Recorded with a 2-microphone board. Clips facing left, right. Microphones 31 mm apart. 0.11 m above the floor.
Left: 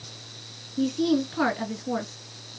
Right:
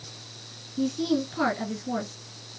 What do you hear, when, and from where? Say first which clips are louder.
0.8 s a woman speaking: left 2 dB; 5° left (ahead or behind), 1.6 m